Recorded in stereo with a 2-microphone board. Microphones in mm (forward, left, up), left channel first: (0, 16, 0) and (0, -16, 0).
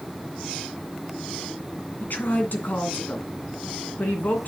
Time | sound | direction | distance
2.0 | a woman speaking | 70° left (ahead or behind) | 2.5 m